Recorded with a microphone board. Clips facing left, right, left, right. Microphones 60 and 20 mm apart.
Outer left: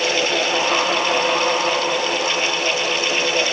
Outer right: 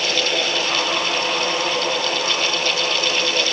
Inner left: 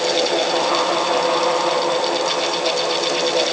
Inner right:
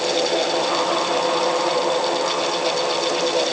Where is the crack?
I don't hear a crack.